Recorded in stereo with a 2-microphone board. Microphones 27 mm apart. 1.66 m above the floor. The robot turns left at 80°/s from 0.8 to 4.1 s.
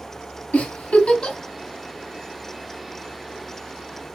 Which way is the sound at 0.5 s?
65° left (ahead or behind).